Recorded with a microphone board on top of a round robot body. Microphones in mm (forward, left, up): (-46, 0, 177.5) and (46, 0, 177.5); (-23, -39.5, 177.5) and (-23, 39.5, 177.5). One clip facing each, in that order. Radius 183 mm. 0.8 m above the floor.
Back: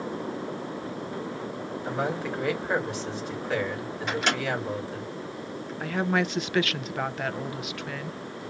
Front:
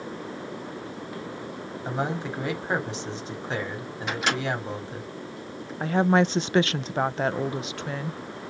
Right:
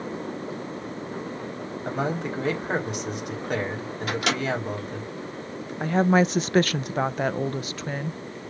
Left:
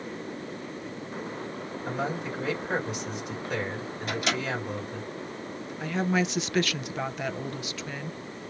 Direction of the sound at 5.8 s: 55° right.